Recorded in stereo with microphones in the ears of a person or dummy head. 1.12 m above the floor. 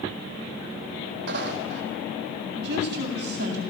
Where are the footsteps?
60° right (ahead or behind), 3 m.